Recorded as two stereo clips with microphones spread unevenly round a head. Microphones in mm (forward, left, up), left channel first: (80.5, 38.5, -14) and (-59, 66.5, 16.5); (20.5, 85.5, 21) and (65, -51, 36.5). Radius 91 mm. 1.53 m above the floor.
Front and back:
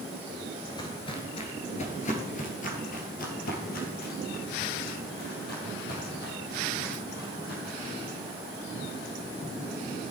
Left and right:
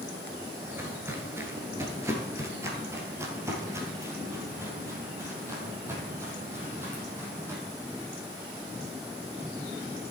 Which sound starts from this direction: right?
Footsteps, at 0.6 s.